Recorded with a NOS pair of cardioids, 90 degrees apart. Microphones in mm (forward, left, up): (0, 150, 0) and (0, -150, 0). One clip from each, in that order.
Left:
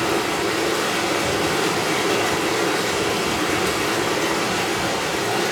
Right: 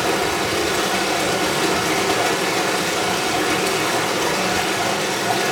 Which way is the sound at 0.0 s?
30° right.